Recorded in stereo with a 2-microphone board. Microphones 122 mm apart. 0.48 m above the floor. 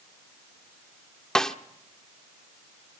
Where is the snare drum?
5° left (ahead or behind), 1.2 m.